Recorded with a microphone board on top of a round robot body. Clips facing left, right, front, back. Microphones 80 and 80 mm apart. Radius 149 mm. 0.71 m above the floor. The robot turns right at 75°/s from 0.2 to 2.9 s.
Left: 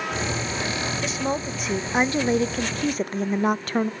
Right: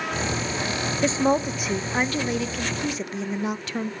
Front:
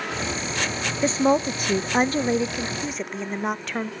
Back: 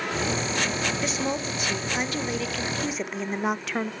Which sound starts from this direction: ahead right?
A woman speaking, at 1.0 s.